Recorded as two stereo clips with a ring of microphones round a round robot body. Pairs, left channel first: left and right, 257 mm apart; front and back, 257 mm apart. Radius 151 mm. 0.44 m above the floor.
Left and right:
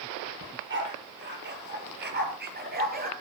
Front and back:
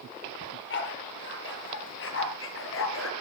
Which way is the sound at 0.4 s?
45° right.